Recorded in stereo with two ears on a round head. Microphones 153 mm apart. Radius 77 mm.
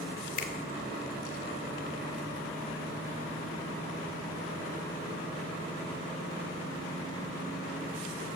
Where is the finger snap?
45° left (ahead or behind), 1.7 m.